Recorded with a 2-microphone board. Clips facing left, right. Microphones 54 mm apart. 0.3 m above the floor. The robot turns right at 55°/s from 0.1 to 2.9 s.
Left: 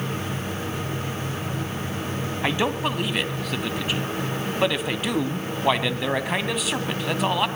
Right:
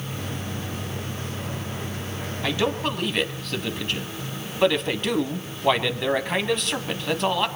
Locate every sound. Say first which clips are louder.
2.4 s a man speaking: even; 25° left (ahead or behind), 1.9 m; by 7.5 s 5° left (ahead or behind), 1.9 m